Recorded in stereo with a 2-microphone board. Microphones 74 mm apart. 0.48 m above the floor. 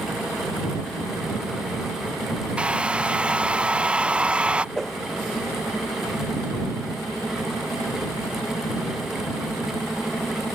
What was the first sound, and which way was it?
A hair dryer, 15° right (ahead or behind).